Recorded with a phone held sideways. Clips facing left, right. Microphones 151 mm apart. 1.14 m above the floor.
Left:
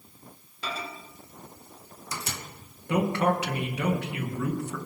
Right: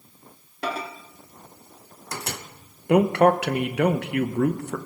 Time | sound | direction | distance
0.6 | a microwave | 65° right (ahead or behind) | 0.9 m
2.9 | a man speaking | 65° right (ahead or behind) | 0.9 m